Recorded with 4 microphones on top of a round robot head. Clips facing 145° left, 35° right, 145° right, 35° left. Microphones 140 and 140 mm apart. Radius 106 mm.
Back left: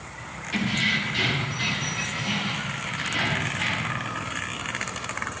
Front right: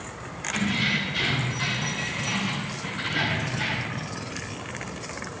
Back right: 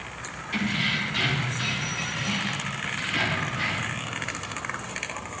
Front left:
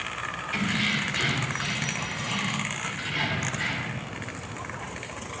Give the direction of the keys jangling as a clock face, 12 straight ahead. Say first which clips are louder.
Even, back right 1 dB; 6 o'clock.